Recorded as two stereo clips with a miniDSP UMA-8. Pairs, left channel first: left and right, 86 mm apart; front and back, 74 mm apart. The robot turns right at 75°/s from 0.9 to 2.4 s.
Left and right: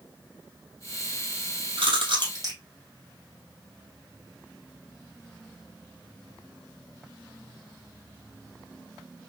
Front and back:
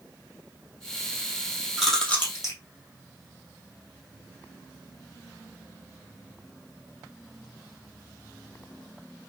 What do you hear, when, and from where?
1.8 s chewing: 95° right, 2.5 m; by 2.6 s 50° right, 2.5 m